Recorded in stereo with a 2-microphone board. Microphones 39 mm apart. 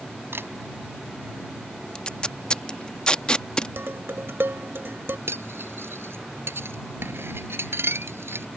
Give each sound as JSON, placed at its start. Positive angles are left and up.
{"t": 0.3, "sound": "a camera shutter", "side_deg": -80}
{"t": 1.9, "sound": "tape being pulled", "side_deg": 25}
{"t": 3.8, "sound": "dishes clattering", "side_deg": -80}
{"t": 5.3, "sound": "cutlery clinking", "side_deg": -85}